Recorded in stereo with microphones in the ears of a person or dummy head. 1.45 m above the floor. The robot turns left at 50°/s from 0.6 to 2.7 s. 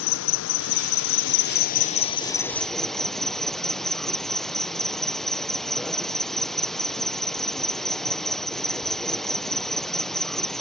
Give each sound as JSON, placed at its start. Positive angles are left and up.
{"t": 0.0, "sound": "an insect", "azimuth_deg": 105}